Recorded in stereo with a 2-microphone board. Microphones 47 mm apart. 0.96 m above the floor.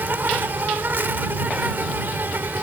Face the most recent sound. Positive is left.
turn(degrees=-50)  # may be behind; listen again after turning